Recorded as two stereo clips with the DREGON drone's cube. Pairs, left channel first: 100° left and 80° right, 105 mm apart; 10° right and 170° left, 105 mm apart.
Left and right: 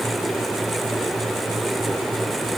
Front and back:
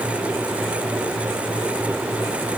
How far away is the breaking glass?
No breaking glass in this recording.